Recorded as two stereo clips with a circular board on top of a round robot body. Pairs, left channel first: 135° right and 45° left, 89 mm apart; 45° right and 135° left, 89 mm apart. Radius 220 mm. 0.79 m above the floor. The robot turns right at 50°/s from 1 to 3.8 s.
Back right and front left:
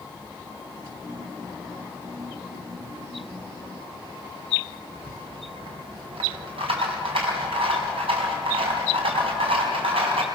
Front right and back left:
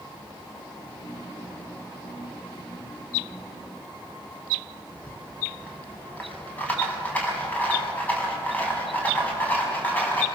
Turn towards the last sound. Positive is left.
turn(degrees=30)